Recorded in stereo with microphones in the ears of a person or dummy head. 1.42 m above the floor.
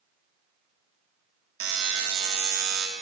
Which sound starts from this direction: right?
A buzzer, at 1.6 s.